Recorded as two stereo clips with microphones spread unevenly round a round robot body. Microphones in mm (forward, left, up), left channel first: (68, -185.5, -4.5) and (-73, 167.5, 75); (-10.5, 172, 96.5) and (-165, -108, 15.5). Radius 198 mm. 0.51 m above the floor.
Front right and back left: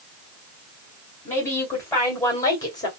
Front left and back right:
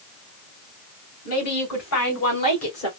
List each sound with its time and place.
1.2 s a woman speaking: 10° left, 3 m; by 2.9 s 5° left, 1.9 m